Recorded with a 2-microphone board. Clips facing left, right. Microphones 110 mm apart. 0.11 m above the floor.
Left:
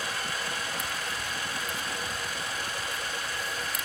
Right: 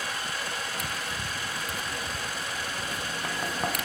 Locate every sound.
0.8 s tapping: 75° right (ahead or behind)